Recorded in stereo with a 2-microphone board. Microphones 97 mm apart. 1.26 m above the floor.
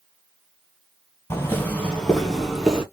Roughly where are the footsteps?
Left.